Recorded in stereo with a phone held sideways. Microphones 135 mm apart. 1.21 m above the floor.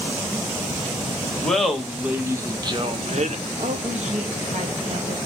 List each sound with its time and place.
1.4 s laughter: 5° left (ahead or behind), 1.1 m; by 3.4 s 65° right (ahead or behind), 0.8 m
3.6 s a woman speaking: 60° right (ahead or behind), 1.1 m